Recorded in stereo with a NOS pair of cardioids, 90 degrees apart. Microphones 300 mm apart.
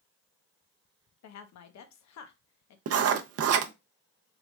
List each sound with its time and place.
1.2 s a woman speaking: 65° left, 1.0 m
2.9 s writing: 55° right, 0.6 m